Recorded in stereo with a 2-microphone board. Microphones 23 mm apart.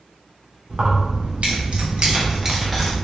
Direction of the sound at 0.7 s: 65° right (ahead or behind).